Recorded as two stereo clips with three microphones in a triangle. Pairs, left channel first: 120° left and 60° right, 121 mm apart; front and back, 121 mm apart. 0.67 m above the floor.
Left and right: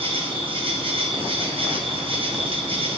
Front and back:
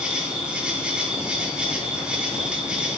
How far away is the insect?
About 0.8 m.